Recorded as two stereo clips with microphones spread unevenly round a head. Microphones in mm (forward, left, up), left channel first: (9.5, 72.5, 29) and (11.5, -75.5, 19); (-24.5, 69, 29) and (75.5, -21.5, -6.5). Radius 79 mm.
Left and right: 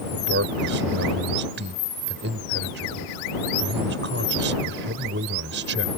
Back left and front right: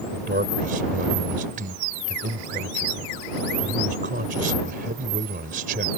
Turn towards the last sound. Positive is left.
turn(degrees=-85)